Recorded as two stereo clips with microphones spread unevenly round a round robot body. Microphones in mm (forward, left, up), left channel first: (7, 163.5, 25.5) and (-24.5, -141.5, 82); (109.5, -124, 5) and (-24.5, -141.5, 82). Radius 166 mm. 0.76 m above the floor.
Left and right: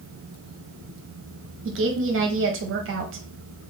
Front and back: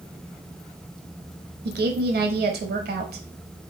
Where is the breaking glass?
I don't hear breaking glass.